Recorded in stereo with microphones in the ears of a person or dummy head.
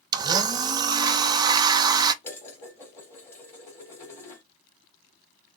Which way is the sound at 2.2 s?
15° left (ahead or behind).